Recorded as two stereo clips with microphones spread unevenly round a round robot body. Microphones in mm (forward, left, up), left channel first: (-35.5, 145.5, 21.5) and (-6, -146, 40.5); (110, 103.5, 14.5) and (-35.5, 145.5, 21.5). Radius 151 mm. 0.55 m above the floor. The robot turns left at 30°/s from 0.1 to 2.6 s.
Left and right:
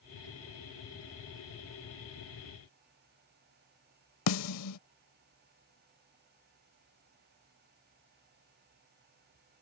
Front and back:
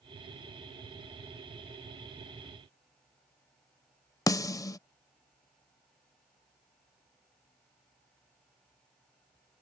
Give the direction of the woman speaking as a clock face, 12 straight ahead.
I don't hear a woman speaking.